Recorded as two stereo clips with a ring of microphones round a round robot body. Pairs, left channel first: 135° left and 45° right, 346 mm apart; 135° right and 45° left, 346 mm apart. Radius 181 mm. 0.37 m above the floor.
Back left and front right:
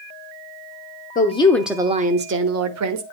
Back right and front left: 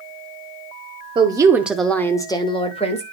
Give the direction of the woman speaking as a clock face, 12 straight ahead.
9 o'clock.